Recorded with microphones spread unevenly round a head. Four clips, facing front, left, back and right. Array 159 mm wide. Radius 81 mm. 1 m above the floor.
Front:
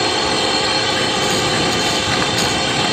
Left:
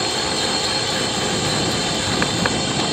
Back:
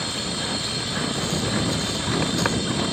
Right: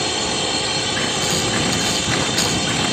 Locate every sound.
0.0 s a drone: straight ahead